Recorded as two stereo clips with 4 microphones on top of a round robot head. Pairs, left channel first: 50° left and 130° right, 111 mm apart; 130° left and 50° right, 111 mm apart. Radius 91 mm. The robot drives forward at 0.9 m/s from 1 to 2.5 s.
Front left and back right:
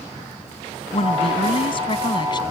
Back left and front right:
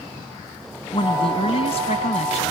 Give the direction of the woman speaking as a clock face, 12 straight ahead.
9 o'clock.